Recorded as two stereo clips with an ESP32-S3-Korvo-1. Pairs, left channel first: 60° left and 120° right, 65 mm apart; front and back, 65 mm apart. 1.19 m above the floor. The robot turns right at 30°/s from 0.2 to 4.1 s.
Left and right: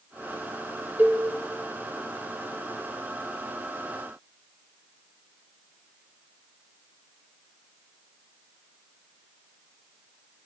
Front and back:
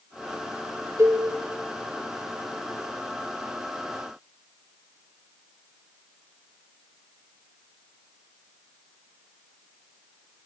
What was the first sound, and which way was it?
A cowbell, 170° right.